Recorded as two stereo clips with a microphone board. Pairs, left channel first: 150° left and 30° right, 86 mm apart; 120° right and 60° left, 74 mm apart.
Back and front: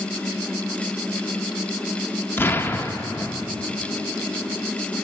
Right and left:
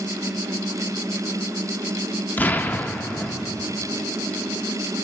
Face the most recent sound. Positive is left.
turn(degrees=-165)